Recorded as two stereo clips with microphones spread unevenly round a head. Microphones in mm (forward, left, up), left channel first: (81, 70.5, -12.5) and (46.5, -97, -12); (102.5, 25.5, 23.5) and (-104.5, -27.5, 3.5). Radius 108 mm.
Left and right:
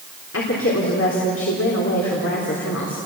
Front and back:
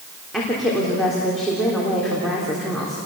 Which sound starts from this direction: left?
A woman speaking, at 0.3 s.